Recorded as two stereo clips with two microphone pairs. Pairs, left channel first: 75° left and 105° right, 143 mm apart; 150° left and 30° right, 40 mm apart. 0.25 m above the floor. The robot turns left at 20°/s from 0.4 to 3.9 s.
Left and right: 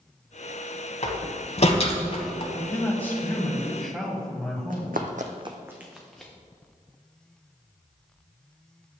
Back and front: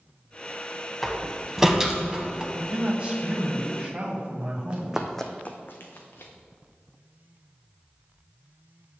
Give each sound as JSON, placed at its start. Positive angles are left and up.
{"t": 1.0, "sound": "a door slam", "azimuth_deg": 65, "distance_m": 0.9}
{"t": 2.5, "sound": "a man speaking", "azimuth_deg": 15, "distance_m": 1.4}
{"t": 4.7, "sound": "running footsteps", "azimuth_deg": -90, "distance_m": 1.0}